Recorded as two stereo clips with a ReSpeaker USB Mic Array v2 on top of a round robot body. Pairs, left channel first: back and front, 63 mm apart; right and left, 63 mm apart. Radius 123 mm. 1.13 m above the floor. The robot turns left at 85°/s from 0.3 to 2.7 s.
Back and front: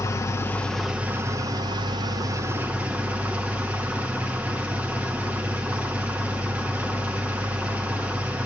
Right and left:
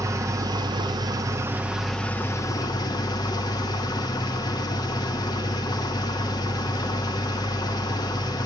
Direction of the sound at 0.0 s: 130° left.